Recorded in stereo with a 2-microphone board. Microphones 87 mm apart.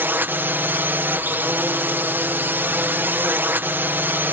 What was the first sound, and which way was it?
A drone, 25° right (ahead or behind).